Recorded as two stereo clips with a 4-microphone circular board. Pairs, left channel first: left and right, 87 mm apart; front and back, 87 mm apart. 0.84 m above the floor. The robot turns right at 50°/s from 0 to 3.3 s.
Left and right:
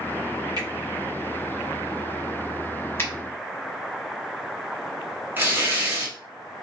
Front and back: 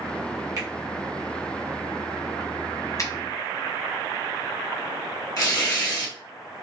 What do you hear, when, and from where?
0.6 s a finger snap: 130° right, 1.9 m; by 0.7 s 125° right, 1.9 m
3.0 s a finger snap: 30° left, 1.0 m; by 3.1 s 40° left, 1.0 m
5.4 s tearing paper: 30° right, 1.3 m